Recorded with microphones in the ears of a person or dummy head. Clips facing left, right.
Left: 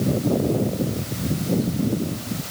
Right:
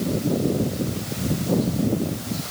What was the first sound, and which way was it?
Only background noise.